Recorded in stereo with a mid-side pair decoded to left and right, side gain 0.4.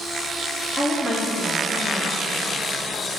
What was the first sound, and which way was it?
A woman speaking, straight ahead.